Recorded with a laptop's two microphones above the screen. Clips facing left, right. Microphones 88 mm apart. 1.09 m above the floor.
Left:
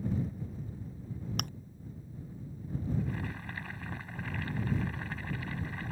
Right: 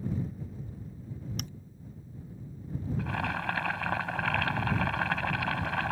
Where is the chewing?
55° left (ahead or behind).